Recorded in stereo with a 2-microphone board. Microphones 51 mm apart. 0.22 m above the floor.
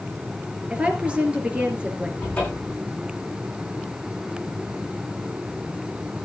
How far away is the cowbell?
I don't hear a cowbell.